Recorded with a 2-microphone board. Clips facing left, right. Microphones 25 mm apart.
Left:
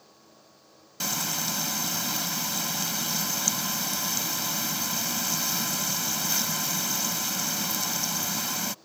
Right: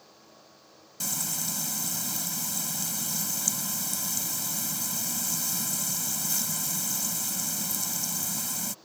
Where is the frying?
35° left (ahead or behind).